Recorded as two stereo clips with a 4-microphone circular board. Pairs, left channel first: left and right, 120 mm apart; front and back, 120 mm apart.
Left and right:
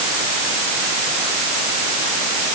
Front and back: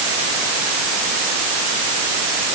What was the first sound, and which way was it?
Only background noise.